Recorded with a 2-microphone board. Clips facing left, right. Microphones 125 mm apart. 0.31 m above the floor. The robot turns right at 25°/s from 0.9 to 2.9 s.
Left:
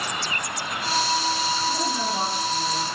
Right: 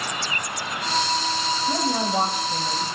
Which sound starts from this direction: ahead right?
A woman speaking, at 1.7 s.